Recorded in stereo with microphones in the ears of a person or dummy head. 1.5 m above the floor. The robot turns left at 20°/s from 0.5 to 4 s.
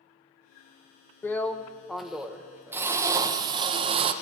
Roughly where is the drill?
Ahead.